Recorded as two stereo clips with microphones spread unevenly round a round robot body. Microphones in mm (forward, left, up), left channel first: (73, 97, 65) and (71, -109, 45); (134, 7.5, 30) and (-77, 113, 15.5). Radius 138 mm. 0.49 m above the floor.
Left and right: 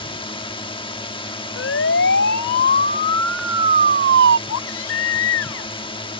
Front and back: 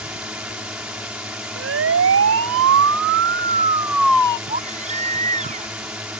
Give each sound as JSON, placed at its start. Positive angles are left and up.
{"t": 0.0, "sound": "a drone", "azimuth_deg": 85}
{"t": 1.6, "sound": "a siren", "azimuth_deg": 125}
{"t": 4.5, "sound": "a baby crying", "azimuth_deg": 95}